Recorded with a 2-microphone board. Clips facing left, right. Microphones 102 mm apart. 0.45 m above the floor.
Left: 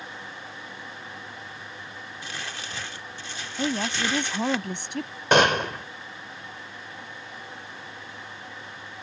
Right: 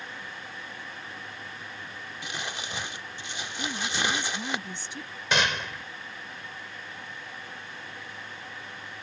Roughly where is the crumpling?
Centre.